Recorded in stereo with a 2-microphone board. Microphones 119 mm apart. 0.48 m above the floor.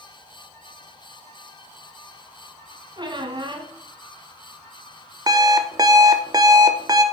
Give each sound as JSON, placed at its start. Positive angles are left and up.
{"t": 3.0, "sound": "a squeak", "side_deg": -40, "distance_m": 1.3}
{"t": 5.3, "sound": "an alarm clock", "side_deg": -35, "distance_m": 0.8}